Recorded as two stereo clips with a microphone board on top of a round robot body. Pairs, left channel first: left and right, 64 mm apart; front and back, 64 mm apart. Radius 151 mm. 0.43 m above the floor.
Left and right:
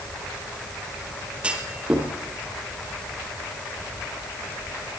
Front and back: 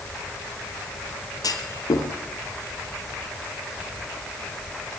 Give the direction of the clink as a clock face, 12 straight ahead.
No clink in this recording.